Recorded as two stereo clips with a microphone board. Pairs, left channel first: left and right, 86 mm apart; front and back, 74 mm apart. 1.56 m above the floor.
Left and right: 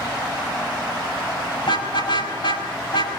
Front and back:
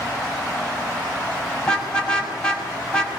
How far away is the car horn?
About 6 m.